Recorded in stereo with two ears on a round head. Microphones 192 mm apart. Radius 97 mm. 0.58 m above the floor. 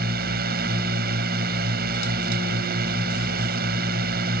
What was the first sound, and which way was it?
A drone, 45° right (ahead or behind).